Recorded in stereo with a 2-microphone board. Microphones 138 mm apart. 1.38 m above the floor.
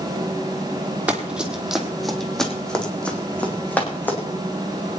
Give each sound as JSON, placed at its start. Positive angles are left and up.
{"t": 1.1, "sound": "running footsteps", "side_deg": -10, "distance_m": 2.0}